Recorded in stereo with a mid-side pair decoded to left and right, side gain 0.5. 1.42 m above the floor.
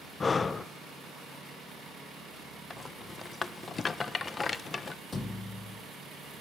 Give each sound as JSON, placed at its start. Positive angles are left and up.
{"t": 0.2, "sound": "breathing", "azimuth_deg": 35, "distance_m": 0.9}
{"t": 2.7, "sound": "a rattle", "azimuth_deg": 35, "distance_m": 1.2}
{"t": 5.1, "sound": "a thud", "azimuth_deg": 30, "distance_m": 4.5}